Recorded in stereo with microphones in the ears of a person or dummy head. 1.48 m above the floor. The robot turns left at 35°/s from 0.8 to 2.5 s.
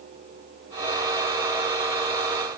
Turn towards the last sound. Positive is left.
No sound to turn to.